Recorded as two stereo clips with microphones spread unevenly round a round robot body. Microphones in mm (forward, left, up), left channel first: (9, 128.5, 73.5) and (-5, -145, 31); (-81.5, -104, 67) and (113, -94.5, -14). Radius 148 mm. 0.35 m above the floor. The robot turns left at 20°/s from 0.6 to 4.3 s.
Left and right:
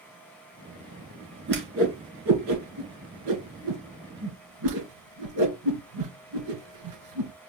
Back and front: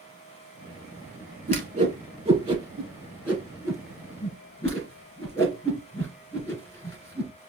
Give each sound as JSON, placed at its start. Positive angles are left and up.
{"t": 1.5, "sound": "a whoosh", "azimuth_deg": -40, "distance_m": 2.5}